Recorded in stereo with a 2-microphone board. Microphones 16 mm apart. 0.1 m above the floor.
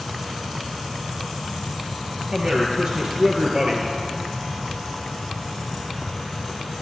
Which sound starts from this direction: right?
A man speaking, at 2.3 s.